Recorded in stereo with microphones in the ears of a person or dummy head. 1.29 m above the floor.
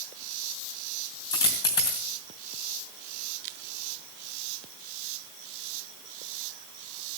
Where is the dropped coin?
20° left (ahead or behind), 3 m.